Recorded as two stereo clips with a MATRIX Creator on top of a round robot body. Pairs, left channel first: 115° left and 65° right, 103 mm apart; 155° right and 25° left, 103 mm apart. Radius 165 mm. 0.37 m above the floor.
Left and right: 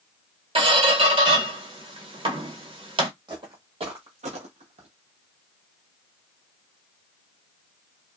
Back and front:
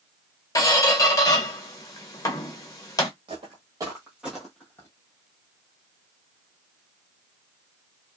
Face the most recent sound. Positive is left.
turn(degrees=-90)